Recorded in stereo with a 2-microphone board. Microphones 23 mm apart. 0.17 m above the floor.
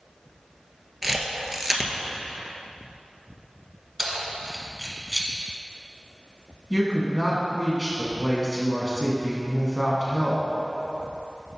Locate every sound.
1.0 s a camera shutter: centre (ahead or behind), 0.9 m
4.0 s keys jangling: 5° right (ahead or behind), 1.0 m
6.7 s a woman speaking: 30° left (ahead or behind), 1.4 m